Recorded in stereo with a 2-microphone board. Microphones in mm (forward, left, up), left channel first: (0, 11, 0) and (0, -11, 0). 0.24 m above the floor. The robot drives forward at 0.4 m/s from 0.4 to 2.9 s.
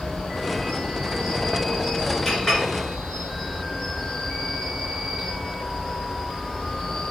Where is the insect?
50° left (ahead or behind), 2 m; by 7.1 s 35° left (ahead or behind), 3 m.